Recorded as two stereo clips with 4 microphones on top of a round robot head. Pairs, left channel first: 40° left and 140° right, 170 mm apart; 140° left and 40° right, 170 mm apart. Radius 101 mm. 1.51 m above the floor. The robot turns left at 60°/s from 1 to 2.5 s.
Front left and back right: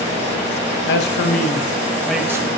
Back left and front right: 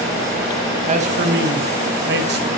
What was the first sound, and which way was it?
A man speaking, 15° left.